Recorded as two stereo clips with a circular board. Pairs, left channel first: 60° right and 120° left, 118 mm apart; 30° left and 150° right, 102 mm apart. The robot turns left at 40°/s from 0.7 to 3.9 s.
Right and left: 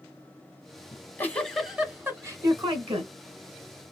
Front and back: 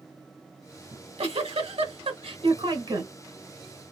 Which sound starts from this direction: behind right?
A giggle, at 0.9 s.